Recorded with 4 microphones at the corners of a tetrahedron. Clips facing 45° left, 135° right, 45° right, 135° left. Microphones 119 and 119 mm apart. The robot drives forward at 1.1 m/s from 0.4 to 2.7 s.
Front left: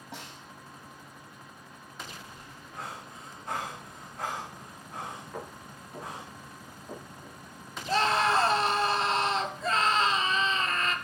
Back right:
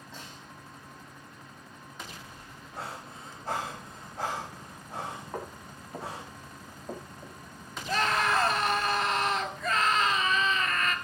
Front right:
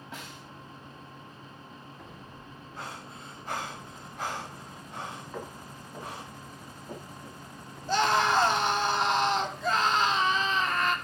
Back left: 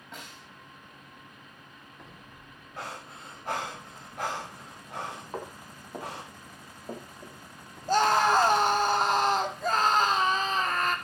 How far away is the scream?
About 2 m.